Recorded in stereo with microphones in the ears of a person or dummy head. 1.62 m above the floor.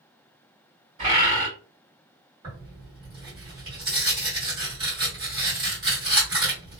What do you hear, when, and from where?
1.0 s a bird: 30° right (ahead or behind), 1.9 m
2.4 s tearing paper: 20° right (ahead or behind), 1.7 m